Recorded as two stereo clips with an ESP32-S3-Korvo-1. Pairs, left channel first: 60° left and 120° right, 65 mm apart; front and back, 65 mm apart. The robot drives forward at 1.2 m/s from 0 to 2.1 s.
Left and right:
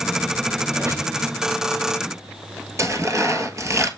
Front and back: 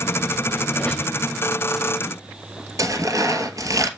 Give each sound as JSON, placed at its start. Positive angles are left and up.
{"t": 0.7, "sound": "a squeak", "azimuth_deg": -70, "distance_m": 3.5}
{"t": 2.8, "sound": "tearing paper", "azimuth_deg": -155, "distance_m": 1.0}